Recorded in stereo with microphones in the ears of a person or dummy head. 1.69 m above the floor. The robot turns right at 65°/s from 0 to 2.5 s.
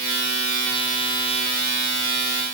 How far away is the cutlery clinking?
No cutlery clinking in this recording.